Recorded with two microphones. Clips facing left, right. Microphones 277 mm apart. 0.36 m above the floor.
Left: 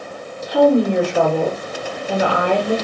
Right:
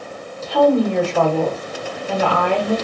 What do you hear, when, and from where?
0.4 s a woman speaking: 15° left (ahead or behind), 1.2 m